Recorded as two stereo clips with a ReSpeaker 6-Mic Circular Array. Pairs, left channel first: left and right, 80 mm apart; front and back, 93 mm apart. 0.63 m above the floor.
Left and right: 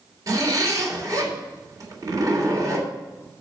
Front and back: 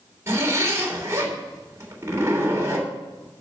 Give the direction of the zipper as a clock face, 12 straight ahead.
4 o'clock.